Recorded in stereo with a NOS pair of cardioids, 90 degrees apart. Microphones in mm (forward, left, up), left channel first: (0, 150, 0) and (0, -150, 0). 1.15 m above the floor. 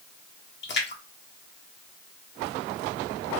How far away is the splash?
About 1.1 m.